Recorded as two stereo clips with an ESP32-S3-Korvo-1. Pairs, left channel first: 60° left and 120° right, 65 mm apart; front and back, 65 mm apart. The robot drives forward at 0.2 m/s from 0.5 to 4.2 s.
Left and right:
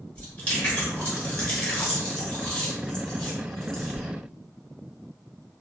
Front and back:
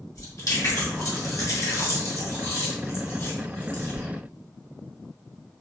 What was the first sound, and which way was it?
Chewing, 5° right.